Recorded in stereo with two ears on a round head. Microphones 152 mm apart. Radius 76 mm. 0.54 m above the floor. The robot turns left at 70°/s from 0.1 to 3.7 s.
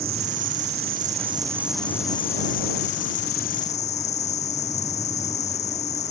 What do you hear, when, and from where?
0.0 s an insect: 65° right; by 6.1 s 45° left